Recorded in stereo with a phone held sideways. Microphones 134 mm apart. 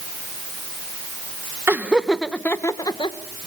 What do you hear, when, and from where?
1.7 s laughter: 15° right (ahead or behind), 1.4 m; by 3.5 s 50° left (ahead or behind), 1.6 m